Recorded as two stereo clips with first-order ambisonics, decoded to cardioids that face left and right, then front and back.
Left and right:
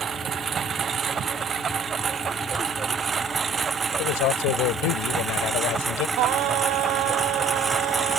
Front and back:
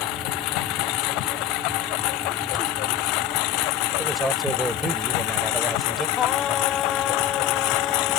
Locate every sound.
0.0 s a lawn mower: 25° right; by 8.2 s 10° right
4.0 s a man speaking: 100° left
6.2 s singing: 60° right